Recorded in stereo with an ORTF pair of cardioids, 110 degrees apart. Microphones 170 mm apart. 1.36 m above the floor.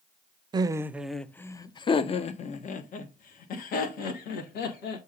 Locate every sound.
0.5 s laughter: 25° right, 0.7 m; by 5.0 s 70° left, 2 m